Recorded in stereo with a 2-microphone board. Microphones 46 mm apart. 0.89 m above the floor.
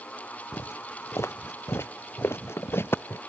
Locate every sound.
0.5 s footsteps: 80° left; by 3.2 s 55° left (ahead or behind)